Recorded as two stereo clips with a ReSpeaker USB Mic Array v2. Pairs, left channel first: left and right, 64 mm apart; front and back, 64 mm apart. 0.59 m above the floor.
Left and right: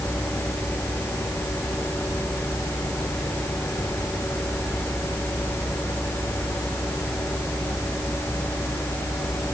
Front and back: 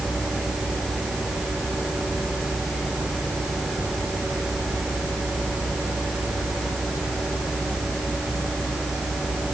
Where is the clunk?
I don't hear a clunk.